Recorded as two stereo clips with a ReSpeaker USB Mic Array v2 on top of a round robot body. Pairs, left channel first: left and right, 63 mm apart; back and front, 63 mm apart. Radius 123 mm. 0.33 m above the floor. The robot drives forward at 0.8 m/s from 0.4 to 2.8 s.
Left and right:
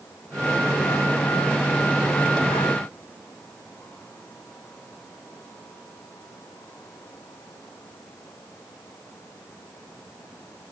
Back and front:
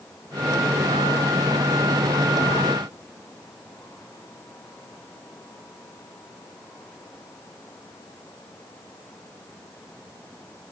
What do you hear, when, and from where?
Only background noise.